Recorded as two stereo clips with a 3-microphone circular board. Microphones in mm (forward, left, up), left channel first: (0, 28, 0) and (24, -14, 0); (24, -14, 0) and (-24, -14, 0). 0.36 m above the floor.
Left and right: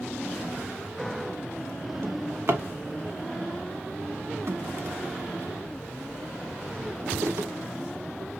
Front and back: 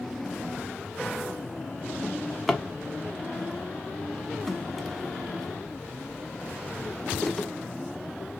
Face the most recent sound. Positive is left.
turn(degrees=-85)